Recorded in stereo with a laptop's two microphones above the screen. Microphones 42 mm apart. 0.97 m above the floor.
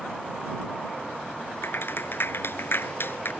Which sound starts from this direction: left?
A clap, at 1.6 s.